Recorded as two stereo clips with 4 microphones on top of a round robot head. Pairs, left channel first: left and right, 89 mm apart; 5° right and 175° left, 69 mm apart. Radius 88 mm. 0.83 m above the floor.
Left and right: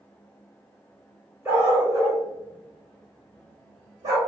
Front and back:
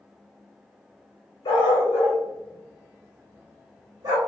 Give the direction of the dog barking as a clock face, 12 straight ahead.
1 o'clock.